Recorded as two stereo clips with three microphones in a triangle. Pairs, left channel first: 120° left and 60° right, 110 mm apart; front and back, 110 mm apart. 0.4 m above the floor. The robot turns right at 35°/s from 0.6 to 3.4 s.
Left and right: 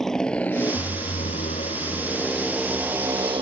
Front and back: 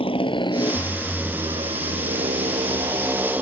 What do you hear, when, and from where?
0.0 s a motorcycle: 35° left; by 3.4 s 100° right